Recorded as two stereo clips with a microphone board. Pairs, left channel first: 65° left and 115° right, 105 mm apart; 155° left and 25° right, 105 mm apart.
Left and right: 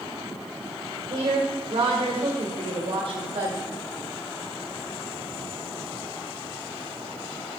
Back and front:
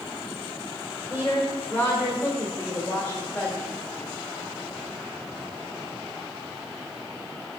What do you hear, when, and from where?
1.1 s a woman speaking: 130° right, 1.6 m